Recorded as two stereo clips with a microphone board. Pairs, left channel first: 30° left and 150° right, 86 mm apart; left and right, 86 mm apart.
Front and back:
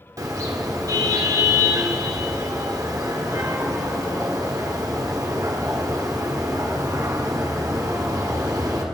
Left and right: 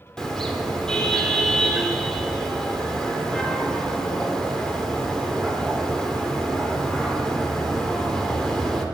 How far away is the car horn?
About 2 m.